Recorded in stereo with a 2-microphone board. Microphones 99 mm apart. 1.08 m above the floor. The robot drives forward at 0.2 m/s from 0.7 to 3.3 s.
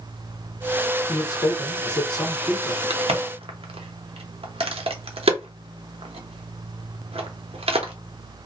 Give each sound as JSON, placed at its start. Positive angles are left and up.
{"t": 1.1, "sound": "a man speaking", "side_deg": 40, "distance_m": 0.9}
{"t": 2.9, "sound": "a crack", "side_deg": -85, "distance_m": 0.7}